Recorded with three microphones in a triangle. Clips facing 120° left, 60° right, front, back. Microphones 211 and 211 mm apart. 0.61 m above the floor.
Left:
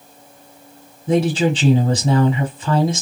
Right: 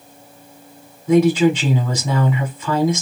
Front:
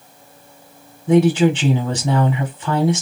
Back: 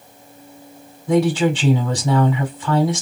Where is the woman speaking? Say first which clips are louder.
Right 4 dB, front 3 dB; 70° left, 1.1 m.